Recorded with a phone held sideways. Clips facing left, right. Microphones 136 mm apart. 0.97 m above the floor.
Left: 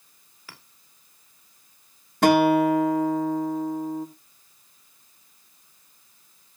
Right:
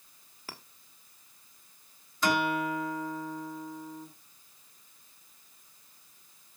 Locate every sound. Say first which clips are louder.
0.5 s a clink: right 3 dB; 40° right (ahead or behind), 1.6 m
2.2 s a guitar: left 11 dB; 65° left (ahead or behind), 1.7 m